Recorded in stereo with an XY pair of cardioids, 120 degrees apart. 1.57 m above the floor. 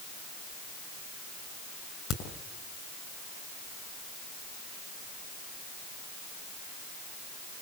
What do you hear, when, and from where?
2.1 s a crack: 65° left, 5.5 m